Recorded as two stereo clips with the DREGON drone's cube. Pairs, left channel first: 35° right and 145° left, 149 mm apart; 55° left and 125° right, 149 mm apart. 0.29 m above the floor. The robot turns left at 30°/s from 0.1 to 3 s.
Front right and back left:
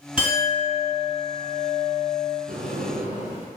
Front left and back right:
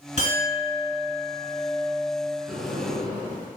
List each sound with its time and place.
0.2 s a clink: 65° left, 1.3 m; by 2.4 s 5° right, 1.3 m
2.5 s a sliding door: 155° left, 0.8 m; by 3.5 s 140° left, 0.8 m